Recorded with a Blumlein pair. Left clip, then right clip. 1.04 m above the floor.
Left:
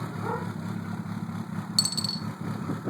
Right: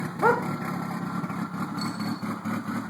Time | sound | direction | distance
0.2 | a dog barking | 40° right | 2 m
1.8 | a dropped coin | 45° left | 1.2 m